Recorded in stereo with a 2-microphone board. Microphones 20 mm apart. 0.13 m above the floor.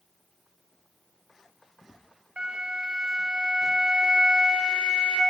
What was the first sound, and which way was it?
A flute, 55° right (ahead or behind).